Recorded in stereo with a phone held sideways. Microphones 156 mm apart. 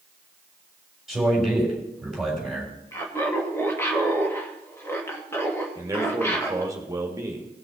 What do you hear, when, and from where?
1.1 s a man speaking: centre (ahead or behind), 3.5 m
2.9 s laughter: 15° left (ahead or behind), 1.6 m
5.8 s a man speaking: 20° right (ahead or behind), 2.0 m